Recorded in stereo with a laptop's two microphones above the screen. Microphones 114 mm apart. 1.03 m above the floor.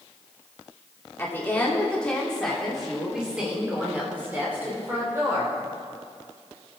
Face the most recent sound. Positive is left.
turn(degrees=-25)  # may be behind; listen again after turning